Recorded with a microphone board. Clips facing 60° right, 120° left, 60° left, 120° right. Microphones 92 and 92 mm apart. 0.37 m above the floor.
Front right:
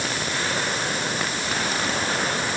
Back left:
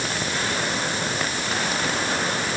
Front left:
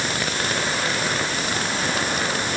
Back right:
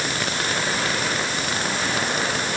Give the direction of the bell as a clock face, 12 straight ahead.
I don't hear a bell.